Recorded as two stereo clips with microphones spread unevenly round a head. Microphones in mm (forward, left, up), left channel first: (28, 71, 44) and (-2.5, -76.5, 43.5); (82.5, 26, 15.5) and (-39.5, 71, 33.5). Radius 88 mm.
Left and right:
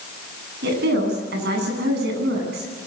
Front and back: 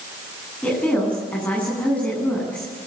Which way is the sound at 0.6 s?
105° right.